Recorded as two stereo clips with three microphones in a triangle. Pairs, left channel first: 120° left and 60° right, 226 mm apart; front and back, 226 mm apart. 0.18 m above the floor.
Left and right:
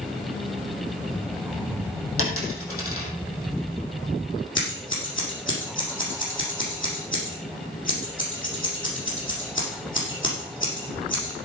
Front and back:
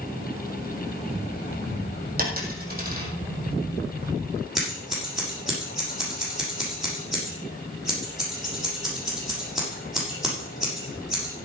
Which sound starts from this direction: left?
Scissors, at 4.5 s.